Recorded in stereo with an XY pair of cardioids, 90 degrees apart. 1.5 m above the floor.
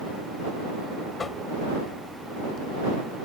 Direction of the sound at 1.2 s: 45° left.